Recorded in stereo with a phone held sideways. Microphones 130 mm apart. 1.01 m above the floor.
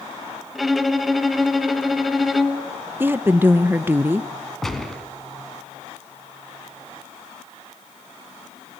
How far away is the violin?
About 1.3 m.